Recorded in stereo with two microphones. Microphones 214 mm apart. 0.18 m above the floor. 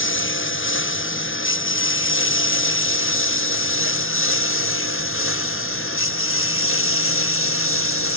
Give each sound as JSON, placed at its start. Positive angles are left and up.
{"t": 0.0, "sound": "a lawn mower", "side_deg": 65}